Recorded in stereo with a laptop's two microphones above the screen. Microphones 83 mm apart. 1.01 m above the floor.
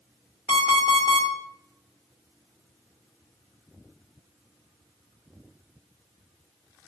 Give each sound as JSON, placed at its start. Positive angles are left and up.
{"t": 0.5, "sound": "an alarm clock", "side_deg": 75, "distance_m": 1.3}